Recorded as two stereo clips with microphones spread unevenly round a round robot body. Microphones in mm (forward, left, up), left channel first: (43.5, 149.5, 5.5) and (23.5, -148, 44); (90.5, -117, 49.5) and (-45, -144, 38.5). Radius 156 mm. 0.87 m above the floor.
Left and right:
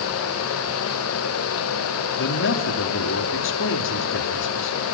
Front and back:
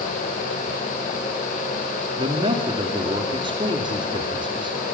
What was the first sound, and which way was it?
A man speaking, 130° left.